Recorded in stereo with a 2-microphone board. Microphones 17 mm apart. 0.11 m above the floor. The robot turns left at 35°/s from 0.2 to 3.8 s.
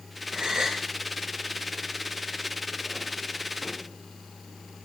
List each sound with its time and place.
0.3 s a gasp: 55° right (ahead or behind), 2.5 m; by 0.8 s 35° right (ahead or behind), 2.5 m